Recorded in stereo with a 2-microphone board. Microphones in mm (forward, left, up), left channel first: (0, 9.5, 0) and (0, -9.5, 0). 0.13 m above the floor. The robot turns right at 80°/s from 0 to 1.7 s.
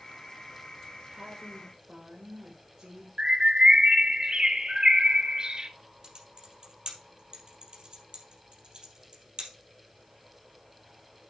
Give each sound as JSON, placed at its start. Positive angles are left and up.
{"t": 1.1, "sound": "a woman speaking", "azimuth_deg": -85, "distance_m": 5.5}
{"t": 3.2, "sound": "a bird", "side_deg": -45, "distance_m": 0.9}
{"t": 6.0, "sound": "typing on a keyboard", "side_deg": -50, "distance_m": 3.5}